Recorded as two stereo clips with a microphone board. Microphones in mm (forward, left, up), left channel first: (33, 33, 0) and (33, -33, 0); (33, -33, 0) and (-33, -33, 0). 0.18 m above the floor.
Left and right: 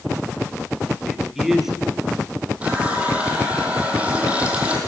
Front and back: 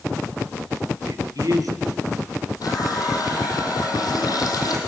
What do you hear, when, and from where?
1.0 s a man speaking: 175° right, 3.5 m
2.6 s a running tap: 20° right, 4.5 m